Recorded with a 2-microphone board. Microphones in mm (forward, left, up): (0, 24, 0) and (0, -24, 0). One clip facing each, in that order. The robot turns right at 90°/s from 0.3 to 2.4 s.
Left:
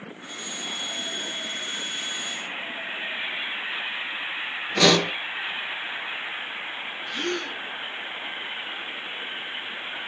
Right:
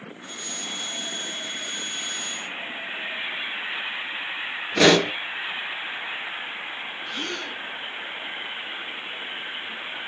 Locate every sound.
4.8 s a pop: 30° right (ahead or behind), 0.7 m
7.1 s a gasp: 50° left (ahead or behind), 1.4 m